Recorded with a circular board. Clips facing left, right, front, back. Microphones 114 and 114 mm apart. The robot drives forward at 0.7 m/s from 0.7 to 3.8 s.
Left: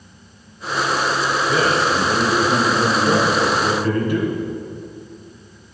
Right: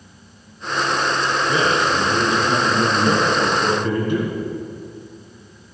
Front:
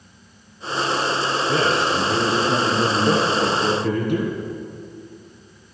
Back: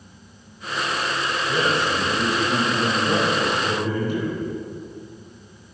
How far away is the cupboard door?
No cupboard door in this recording.